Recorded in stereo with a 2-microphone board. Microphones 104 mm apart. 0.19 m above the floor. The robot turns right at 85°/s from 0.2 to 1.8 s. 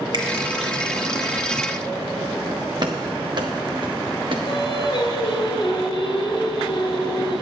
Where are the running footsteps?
45° right (ahead or behind), 1.2 m; by 4.4 s 55° right (ahead or behind), 2 m.